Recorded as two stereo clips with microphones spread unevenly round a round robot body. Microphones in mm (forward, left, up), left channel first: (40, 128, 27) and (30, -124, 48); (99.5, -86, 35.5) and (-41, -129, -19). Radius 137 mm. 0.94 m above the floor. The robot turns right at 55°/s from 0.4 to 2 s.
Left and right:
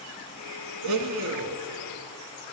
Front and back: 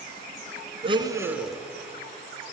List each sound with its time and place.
0.8 s a blender: 100° right, 1.6 m; by 1.6 s 60° right, 1.6 m